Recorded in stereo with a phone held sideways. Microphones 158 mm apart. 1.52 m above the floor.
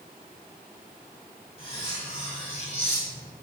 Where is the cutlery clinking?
40° left (ahead or behind), 3 m.